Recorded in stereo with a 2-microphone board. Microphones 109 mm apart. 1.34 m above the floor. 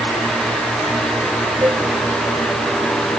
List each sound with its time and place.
1.6 s a cowbell: 25° right (ahead or behind), 6 m